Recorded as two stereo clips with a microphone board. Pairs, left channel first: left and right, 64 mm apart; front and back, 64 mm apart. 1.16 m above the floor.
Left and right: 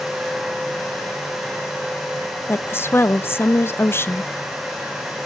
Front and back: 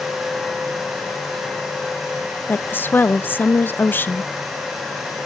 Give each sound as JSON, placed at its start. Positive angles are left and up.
{"t": 2.5, "sound": "a woman speaking", "azimuth_deg": 50, "distance_m": 0.8}